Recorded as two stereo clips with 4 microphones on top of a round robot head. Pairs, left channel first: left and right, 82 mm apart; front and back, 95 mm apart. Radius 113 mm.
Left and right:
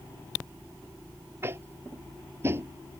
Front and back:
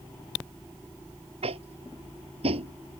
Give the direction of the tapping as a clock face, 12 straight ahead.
5 o'clock.